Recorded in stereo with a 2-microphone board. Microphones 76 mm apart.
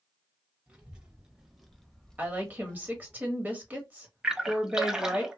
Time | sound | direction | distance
0.7 | a child speaking | 15° right (ahead or behind) | 0.8 m
2.2 | a woman speaking | 20° right (ahead or behind) | 1.0 m
4.2 | a splash | 5° right (ahead or behind) | 0.6 m